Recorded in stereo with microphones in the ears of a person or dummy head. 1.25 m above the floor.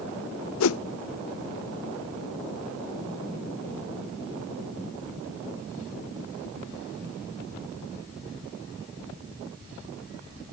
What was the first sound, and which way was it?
A whoosh, 80° left.